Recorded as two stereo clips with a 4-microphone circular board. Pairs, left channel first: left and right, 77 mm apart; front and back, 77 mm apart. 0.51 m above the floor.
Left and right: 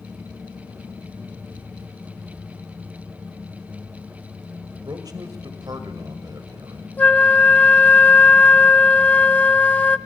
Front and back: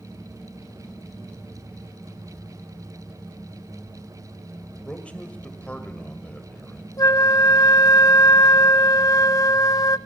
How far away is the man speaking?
About 2 m.